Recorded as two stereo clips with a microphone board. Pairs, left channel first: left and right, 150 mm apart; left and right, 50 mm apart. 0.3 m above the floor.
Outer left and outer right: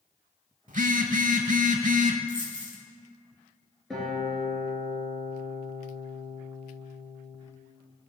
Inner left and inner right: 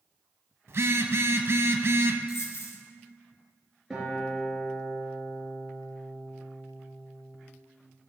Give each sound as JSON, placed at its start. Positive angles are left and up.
{"t": 0.7, "sound": "a phone buzzing", "side_deg": -60, "distance_m": 0.6}
{"t": 2.3, "sound": "a dropped coin", "side_deg": 65, "distance_m": 1.3}
{"t": 3.9, "sound": "a guitar", "side_deg": 0, "distance_m": 3.0}